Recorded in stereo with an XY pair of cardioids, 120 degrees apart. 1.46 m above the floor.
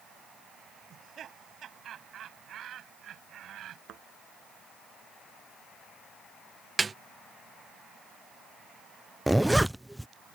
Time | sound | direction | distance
0.9 | laughter | 50° right | ?
3.9 | a thud | 60° right | ?
6.8 | a snare drum | 25° right | ?
9.3 | a zipper | 5° right | ?